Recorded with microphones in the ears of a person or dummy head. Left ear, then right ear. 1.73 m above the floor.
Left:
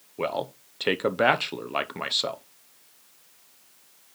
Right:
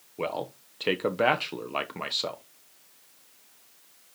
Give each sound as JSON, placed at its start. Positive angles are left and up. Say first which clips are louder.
{"t": 0.2, "sound": "a man speaking", "louder": "left 3 dB", "side_deg": 5, "distance_m": 0.8}